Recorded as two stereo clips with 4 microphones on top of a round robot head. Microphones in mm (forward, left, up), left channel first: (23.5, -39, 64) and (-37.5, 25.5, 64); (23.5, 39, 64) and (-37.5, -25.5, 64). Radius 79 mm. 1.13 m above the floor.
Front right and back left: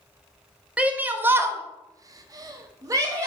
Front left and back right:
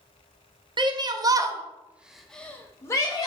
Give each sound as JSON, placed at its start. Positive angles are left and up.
{"t": 0.8, "sound": "a shout", "azimuth_deg": -155, "distance_m": 1.2}